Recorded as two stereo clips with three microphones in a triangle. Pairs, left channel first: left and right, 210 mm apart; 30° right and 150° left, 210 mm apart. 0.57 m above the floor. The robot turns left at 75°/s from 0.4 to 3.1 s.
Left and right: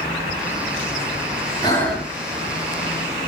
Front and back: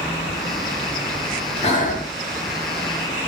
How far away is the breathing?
About 0.8 m.